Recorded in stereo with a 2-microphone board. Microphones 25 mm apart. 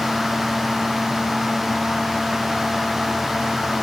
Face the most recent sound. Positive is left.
No sound to turn to.